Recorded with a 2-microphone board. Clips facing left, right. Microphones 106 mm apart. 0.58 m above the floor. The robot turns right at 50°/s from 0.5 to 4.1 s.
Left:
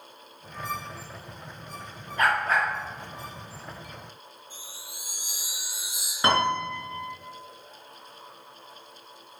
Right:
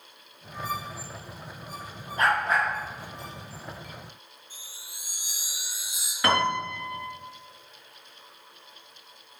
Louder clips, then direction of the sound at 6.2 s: Left 1 dB; 25° left (ahead or behind).